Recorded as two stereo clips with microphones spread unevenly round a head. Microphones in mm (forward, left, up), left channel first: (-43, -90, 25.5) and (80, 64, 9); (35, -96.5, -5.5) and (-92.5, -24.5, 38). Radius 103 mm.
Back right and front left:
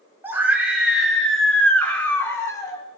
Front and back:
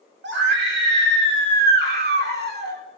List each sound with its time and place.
0.2 s a scream: 135° left, 5 m; by 2.8 s 160° left, 5 m